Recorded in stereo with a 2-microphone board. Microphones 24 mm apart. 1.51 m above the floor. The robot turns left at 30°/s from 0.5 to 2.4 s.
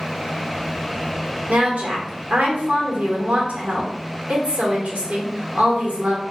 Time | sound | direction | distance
1.5 | a woman speaking | 80° right | 1.4 m